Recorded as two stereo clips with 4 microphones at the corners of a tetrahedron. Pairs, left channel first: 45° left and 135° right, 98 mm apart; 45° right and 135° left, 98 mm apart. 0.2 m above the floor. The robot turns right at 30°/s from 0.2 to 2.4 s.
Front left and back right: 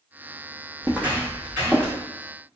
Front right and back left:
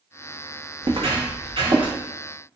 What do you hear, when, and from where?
0.8 s footsteps: 155° left, 0.6 m; by 1.9 s 165° left, 1.7 m